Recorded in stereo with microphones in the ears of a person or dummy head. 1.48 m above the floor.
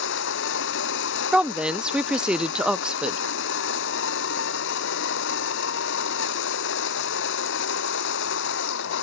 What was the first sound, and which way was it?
A machine running, 70° left (ahead or behind).